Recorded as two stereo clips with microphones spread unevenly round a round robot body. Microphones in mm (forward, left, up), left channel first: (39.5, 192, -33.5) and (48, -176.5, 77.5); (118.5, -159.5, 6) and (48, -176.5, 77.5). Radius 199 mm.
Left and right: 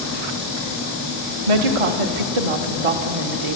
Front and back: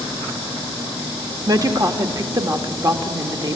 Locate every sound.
1.5 s a woman speaking: 100° right, 2.0 m